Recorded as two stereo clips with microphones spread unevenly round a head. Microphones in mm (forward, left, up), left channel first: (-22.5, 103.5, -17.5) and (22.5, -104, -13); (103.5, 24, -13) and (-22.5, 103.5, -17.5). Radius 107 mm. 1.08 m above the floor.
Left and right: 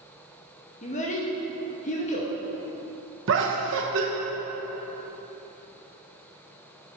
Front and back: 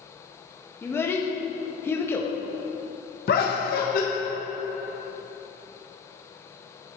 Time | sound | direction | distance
0.8 | a child speaking | 45° left | 0.9 m
3.3 | laughter | 55° right | 1.2 m